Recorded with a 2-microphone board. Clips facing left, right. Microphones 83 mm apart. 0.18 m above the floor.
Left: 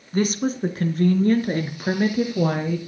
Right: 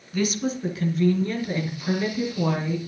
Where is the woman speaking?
40° left (ahead or behind), 2 m; by 2.8 s 55° left (ahead or behind), 4 m.